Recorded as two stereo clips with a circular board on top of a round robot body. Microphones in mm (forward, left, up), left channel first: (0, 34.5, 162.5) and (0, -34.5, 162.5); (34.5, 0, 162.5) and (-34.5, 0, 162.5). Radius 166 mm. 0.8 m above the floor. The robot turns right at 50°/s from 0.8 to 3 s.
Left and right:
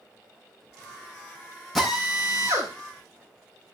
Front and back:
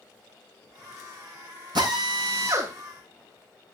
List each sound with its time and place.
1.8 s a drill: straight behind, 6 m; by 2.7 s 135° right, 6 m